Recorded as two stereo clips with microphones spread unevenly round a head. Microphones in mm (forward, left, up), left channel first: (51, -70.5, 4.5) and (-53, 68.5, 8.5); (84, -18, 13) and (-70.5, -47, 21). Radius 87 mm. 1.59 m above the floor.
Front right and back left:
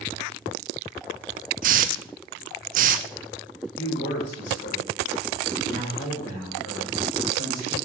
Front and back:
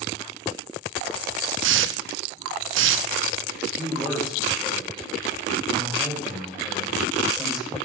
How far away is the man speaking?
About 4.5 m.